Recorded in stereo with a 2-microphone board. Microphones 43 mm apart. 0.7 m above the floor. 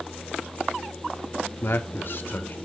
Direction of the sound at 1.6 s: 60° left (ahead or behind).